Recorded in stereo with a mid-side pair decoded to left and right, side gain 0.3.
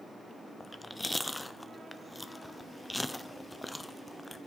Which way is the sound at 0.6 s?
15° left.